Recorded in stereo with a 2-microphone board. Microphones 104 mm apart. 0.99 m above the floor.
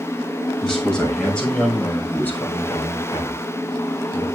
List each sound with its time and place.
0.6 s a man speaking: 5° left (ahead or behind), 7 m; by 4.3 s 55° left (ahead or behind), 3.5 m